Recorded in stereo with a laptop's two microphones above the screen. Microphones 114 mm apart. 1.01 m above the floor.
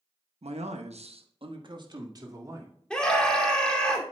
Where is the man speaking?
70° right (ahead or behind), 0.9 m; by 2.8 s 30° right (ahead or behind), 2.5 m.